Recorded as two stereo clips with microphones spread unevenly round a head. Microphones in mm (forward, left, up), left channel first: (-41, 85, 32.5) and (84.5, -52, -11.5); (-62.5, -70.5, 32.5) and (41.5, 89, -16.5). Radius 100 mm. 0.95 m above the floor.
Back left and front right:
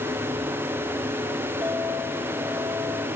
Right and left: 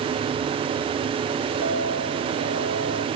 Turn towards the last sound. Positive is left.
turn(degrees=30)